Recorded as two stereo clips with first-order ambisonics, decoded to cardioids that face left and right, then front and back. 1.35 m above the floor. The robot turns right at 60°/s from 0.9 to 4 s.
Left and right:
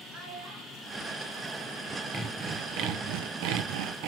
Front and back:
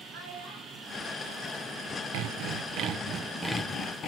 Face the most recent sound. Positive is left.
turn(degrees=-55)